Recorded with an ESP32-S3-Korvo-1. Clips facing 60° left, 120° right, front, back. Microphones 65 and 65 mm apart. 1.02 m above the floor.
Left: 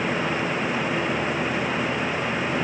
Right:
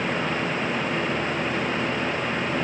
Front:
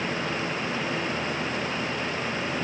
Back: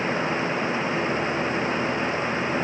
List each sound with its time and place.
Only background noise.